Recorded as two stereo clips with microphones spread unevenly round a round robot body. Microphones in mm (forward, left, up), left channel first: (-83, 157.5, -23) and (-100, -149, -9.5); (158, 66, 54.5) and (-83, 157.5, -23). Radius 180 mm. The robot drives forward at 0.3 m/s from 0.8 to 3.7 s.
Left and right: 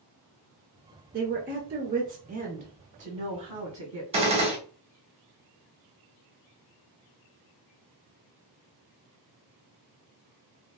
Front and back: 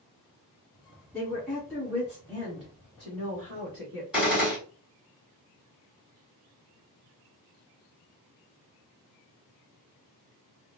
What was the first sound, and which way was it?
A woman speaking, 135° right.